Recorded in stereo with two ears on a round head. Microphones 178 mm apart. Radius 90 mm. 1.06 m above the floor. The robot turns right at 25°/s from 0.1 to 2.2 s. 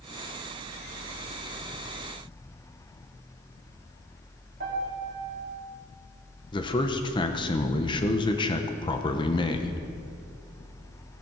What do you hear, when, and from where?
4.6 s a piano: 50° right (ahead or behind), 2.5 m
6.5 s a man speaking: 25° left (ahead or behind), 0.8 m